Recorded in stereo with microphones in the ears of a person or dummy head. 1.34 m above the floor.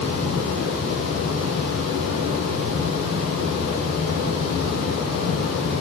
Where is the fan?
75° right (ahead or behind), 9 m.